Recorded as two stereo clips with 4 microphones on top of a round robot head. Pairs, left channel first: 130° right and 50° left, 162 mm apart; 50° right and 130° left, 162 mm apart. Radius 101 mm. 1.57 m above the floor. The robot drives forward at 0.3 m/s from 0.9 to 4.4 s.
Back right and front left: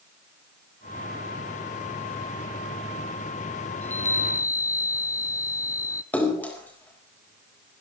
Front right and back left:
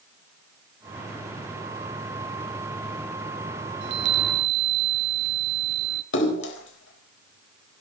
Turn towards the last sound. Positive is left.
turn(degrees=-50)